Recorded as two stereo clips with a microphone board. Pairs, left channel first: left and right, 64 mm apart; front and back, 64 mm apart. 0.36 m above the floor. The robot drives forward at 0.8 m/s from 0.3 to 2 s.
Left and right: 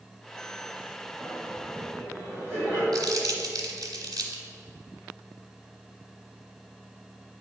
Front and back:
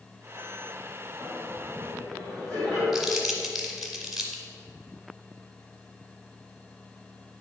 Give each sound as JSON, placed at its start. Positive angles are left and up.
{"t": 1.2, "sound": "laughter", "azimuth_deg": -155, "distance_m": 2.0}
{"t": 2.9, "sound": "crumpling", "azimuth_deg": -95, "distance_m": 1.3}